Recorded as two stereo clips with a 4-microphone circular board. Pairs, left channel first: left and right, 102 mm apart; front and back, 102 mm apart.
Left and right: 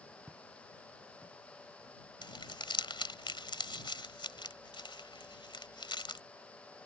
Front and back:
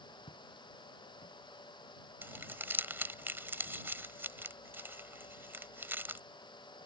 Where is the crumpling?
115° left.